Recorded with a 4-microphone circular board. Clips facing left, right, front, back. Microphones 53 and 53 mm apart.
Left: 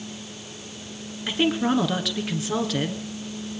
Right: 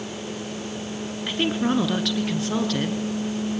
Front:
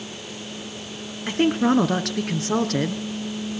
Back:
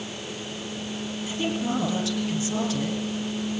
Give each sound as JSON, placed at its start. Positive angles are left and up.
{"t": 1.3, "sound": "a woman speaking", "azimuth_deg": 5, "distance_m": 3.0}